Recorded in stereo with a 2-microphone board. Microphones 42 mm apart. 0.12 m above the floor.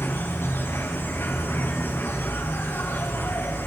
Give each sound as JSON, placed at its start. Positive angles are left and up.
{"t": 0.0, "sound": "an insect", "side_deg": 70, "distance_m": 1.8}